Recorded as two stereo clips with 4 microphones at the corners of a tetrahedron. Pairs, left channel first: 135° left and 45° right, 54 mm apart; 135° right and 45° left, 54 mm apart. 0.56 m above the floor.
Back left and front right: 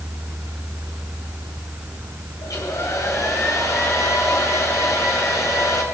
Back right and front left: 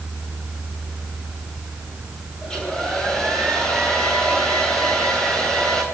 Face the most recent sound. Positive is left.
turn(degrees=145)